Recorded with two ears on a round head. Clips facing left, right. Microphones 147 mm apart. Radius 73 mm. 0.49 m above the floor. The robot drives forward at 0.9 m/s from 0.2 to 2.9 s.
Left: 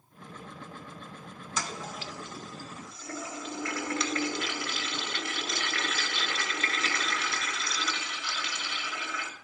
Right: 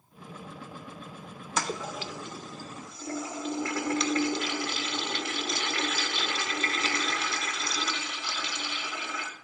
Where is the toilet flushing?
50° right (ahead or behind), 0.6 m; by 9.3 s 25° right (ahead or behind), 1.0 m.